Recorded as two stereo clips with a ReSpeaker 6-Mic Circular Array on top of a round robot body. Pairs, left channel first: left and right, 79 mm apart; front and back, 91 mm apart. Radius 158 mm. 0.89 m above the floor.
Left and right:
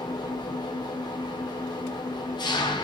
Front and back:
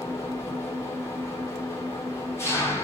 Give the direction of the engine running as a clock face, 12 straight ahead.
10 o'clock.